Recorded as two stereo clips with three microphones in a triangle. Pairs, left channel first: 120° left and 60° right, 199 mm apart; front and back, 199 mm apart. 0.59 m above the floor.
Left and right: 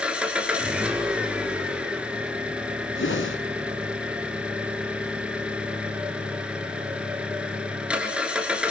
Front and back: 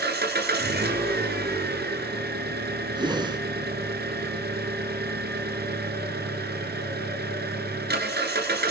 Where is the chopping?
No chopping in this recording.